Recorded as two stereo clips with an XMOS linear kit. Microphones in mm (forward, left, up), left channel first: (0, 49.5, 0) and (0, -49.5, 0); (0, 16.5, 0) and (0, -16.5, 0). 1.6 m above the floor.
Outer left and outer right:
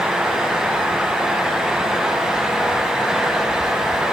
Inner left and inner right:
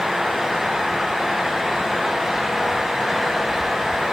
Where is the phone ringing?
No phone ringing in this recording.